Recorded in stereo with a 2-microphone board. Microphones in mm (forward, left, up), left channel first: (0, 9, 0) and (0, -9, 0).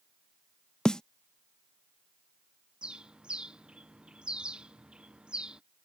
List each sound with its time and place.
0.8 s a snare drum: 40° left (ahead or behind)
2.8 s a bird: 55° right (ahead or behind)